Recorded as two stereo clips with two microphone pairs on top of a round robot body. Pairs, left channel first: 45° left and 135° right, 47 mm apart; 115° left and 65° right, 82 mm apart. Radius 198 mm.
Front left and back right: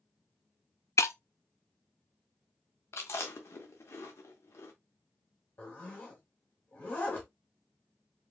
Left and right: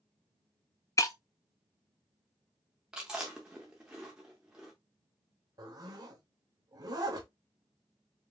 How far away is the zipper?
About 0.7 m.